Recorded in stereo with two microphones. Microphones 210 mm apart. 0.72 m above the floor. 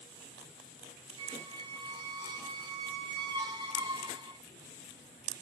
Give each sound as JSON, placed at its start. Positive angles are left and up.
{"t": 1.2, "sound": "a squeak", "side_deg": -25, "distance_m": 1.4}